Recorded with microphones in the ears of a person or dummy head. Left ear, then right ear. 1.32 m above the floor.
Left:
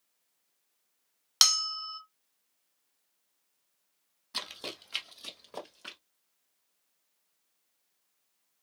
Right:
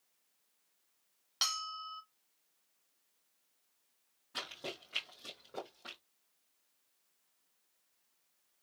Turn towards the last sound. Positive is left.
turn(degrees=40)  # may be behind; listen again after turning